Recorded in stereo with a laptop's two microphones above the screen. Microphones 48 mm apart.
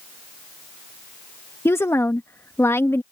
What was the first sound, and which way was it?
A woman speaking, 60° left (ahead or behind).